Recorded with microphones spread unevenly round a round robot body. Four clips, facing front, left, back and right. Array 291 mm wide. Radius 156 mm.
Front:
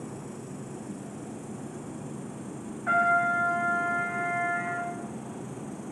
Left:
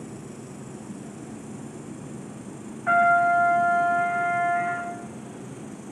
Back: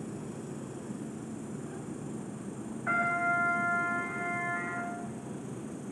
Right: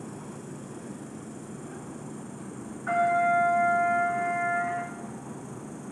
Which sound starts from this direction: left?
An insect, at 0.0 s.